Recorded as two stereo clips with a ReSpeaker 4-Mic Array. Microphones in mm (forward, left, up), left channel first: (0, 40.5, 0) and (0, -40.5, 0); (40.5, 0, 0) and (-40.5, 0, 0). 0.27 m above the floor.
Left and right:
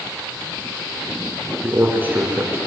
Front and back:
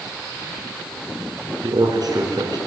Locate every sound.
1.6 s a man speaking: 155° right, 4 m